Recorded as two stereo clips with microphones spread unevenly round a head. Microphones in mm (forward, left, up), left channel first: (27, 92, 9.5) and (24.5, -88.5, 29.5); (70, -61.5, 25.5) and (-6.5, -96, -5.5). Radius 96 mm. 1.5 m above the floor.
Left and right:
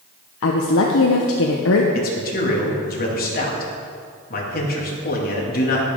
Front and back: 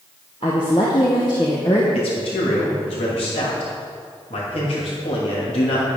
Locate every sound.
0.4 s a woman speaking: 80° left, 0.9 m
1.9 s a man speaking: 50° left, 2.5 m